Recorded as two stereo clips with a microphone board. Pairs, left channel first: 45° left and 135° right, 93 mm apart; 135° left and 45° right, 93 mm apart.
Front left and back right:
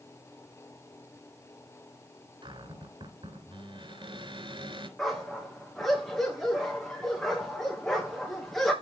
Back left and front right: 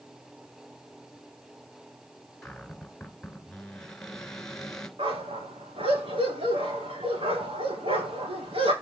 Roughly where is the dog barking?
Ahead right.